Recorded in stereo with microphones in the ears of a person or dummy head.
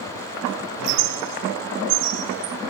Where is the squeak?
60° right (ahead or behind), 0.7 m.